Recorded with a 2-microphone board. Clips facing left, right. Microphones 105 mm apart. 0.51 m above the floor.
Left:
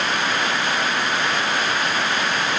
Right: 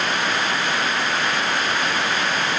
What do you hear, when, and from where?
Only background noise.